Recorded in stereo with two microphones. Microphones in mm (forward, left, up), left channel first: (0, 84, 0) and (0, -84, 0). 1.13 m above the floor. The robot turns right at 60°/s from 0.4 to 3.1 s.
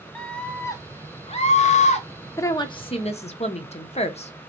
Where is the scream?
10° left, 0.8 m; by 2.1 s 110° left, 0.8 m.